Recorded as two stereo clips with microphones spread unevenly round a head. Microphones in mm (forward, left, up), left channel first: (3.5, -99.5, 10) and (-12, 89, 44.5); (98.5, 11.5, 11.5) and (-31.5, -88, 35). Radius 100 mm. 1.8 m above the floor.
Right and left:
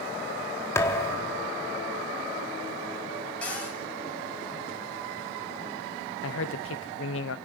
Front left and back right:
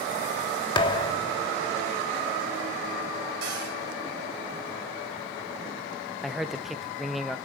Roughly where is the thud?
Ahead.